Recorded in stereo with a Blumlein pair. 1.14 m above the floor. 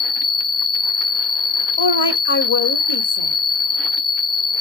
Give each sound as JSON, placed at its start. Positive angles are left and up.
{"t": 0.0, "sound": "an insect", "azimuth_deg": 25, "distance_m": 0.8}
{"t": 1.8, "sound": "a woman speaking", "azimuth_deg": 70, "distance_m": 0.9}